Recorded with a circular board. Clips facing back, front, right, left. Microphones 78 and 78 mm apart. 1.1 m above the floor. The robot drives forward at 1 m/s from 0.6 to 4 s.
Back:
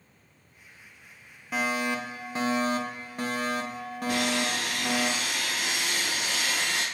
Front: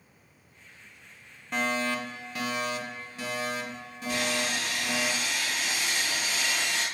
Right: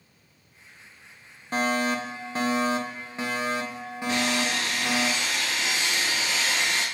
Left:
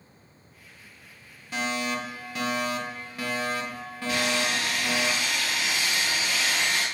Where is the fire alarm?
95° right, 1.7 m; by 5.1 s 160° right, 3 m.